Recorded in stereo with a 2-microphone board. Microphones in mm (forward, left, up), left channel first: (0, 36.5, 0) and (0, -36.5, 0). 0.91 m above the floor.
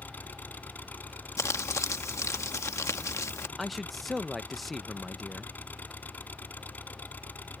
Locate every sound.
0.0 s an engine running: 25° left (ahead or behind)
1.4 s crumpling: 45° left (ahead or behind)
3.6 s a man speaking: centre (ahead or behind)